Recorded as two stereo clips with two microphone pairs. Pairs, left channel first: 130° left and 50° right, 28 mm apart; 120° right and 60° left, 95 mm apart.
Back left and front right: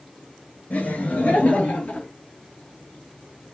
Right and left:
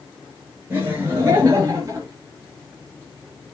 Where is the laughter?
125° left, 4 m; by 2.1 s 115° left, 4.5 m.